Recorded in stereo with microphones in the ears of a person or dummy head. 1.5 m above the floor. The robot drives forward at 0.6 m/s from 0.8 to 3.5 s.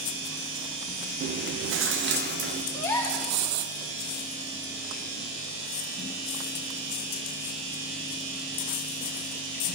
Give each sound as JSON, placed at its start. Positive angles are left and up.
{"t": 1.2, "sound": "chewing", "side_deg": -55, "distance_m": 0.6}
{"t": 2.7, "sound": "a gasp", "side_deg": 15, "distance_m": 1.6}